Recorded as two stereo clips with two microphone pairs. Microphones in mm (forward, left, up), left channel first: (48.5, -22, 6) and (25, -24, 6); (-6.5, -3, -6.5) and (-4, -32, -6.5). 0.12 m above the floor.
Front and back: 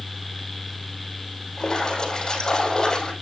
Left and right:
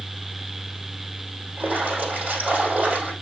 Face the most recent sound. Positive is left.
turn(degrees=-60)